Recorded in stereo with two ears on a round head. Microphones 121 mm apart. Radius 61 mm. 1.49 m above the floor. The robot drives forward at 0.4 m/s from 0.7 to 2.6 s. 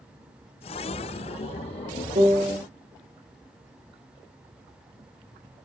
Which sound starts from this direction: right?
A piano, at 2.1 s.